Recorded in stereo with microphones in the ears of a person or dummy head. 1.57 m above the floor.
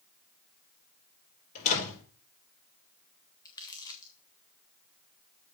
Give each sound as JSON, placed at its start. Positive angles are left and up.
{"t": 1.6, "sound": "a door slam", "side_deg": 45, "distance_m": 4.0}
{"t": 3.5, "sound": "crumpling", "side_deg": 20, "distance_m": 1.3}